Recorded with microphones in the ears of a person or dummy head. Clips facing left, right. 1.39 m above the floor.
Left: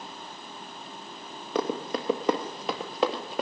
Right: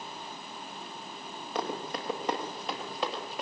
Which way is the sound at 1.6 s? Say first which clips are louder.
Left 6 dB; 55° left (ahead or behind).